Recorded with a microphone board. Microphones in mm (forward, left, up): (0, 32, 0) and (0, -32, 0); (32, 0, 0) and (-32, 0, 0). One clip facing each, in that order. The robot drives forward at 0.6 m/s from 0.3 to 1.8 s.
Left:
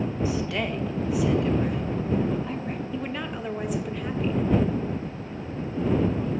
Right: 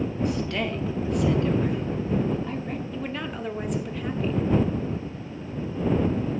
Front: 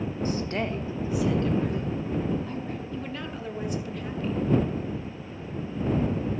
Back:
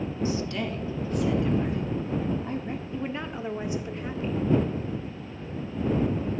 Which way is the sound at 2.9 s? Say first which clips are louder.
Even, back 2 dB; 175° left.